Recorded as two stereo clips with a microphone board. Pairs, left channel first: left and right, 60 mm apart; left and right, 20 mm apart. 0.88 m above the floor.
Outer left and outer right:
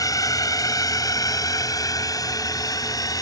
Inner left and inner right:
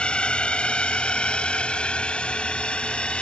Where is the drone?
75° left (ahead or behind); by 3.2 s 80° left.